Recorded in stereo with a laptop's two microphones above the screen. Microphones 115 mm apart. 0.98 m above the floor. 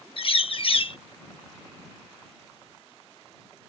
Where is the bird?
55° left (ahead or behind).